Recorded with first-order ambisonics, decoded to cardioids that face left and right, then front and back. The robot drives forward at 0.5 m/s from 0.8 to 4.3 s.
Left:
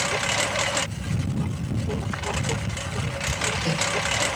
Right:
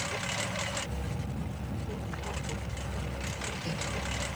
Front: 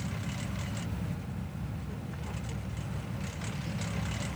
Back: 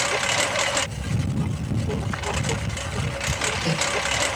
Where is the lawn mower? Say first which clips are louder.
Left 10 dB, back 19 dB; 150° left; by 4.4 s 140° left.